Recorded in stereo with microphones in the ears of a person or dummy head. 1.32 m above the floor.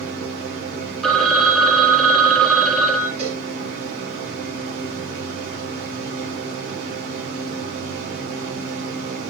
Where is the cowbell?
30° right (ahead or behind), 4.5 m.